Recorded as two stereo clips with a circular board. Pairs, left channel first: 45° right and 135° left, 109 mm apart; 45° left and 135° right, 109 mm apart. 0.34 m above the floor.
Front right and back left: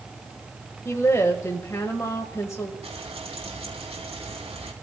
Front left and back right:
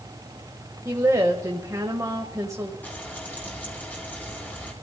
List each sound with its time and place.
0.8 s a woman speaking: 95° right, 1.7 m
2.8 s frying: 115° left, 3 m